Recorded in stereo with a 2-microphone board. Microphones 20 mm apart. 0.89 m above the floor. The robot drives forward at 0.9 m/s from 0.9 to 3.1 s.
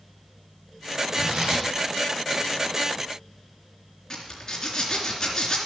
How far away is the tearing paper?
About 3.5 m.